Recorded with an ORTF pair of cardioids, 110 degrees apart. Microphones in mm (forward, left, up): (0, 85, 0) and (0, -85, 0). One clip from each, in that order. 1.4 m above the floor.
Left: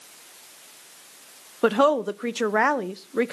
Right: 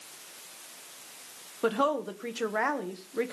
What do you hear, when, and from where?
1.6 s a woman speaking: 45° left, 0.9 m